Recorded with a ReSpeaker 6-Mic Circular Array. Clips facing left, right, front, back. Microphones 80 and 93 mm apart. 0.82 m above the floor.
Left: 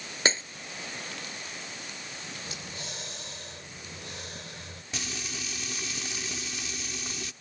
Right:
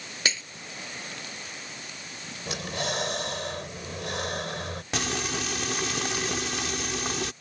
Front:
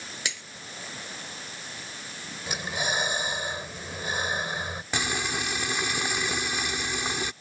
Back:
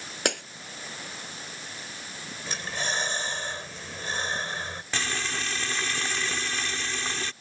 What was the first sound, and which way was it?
Breaking glass, 145° left.